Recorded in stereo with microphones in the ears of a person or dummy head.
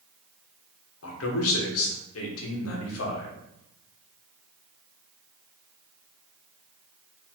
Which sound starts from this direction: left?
A man speaking, at 1.0 s.